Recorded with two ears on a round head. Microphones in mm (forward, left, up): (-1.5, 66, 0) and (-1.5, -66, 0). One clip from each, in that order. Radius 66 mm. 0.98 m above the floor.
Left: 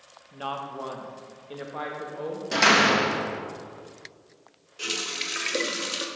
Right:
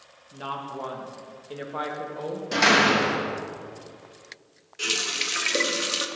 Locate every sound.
0.3 s a woman speaking: 25° left (ahead or behind), 1.2 m; by 2.4 s 15° right (ahead or behind), 1.8 m
2.5 s a door slam: 10° left (ahead or behind), 0.8 m
4.8 s a running tap: 10° right (ahead or behind), 0.8 m